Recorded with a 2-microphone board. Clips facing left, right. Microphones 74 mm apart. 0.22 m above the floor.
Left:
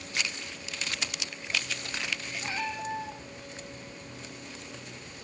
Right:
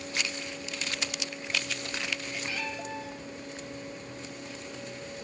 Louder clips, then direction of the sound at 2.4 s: Left 2 dB; 30° left (ahead or behind).